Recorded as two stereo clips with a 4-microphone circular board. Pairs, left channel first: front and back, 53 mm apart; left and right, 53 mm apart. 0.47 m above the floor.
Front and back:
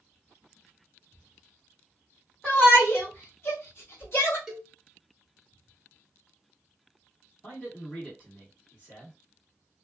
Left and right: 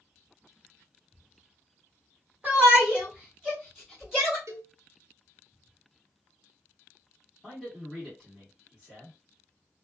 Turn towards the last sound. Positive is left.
turn(degrees=20)